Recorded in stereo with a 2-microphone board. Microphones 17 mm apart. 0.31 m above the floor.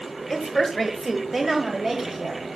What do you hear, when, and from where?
0.3 s a woman speaking: 15° left (ahead or behind), 1.6 m; by 2.4 s 50° right (ahead or behind), 2.5 m